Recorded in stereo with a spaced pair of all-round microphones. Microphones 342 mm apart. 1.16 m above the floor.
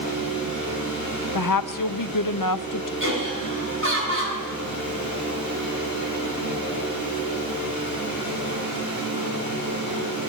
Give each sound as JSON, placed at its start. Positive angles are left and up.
{"t": 0.0, "sound": "a fan", "side_deg": -60, "distance_m": 9.5}
{"t": 1.4, "sound": "a woman speaking", "side_deg": 70, "distance_m": 0.6}
{"t": 3.0, "sound": "laughter", "side_deg": -40, "distance_m": 8.5}